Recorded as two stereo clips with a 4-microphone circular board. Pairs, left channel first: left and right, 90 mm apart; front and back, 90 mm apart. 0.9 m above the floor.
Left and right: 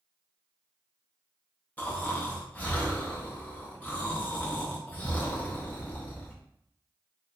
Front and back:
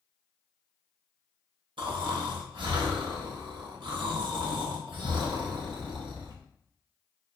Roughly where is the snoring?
Behind.